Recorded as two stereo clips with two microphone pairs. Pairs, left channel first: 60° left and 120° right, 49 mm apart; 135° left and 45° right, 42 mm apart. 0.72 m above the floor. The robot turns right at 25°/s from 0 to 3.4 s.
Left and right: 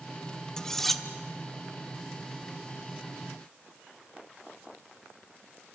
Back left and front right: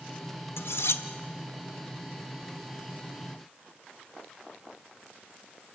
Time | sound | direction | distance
0.6 | cutlery clinking | 140° left | 0.9 m